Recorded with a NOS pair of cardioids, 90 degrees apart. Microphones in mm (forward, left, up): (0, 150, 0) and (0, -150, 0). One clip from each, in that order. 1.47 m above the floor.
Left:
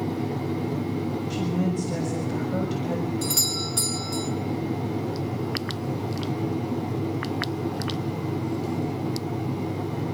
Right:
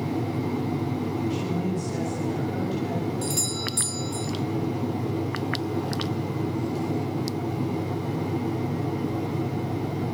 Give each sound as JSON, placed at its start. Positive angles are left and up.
{"t": 1.3, "sound": "a woman speaking", "azimuth_deg": 60, "distance_m": 7.0}
{"t": 3.2, "sound": "a doorbell", "azimuth_deg": 30, "distance_m": 4.0}